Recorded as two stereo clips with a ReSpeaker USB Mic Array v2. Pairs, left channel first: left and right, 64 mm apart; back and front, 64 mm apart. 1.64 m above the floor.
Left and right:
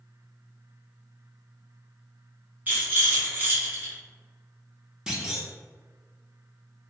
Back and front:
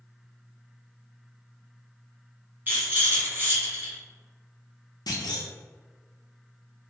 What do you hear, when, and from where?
2.7 s a rattle: 40° right, 1.2 m
5.1 s a clunk: 175° right, 0.6 m